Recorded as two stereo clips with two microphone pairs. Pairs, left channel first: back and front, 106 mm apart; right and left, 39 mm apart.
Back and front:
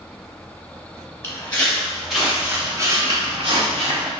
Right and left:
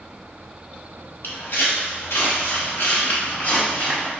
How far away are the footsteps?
About 1.1 m.